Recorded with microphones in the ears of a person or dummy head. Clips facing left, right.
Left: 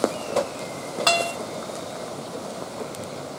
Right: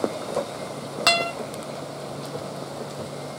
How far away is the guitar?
About 0.8 m.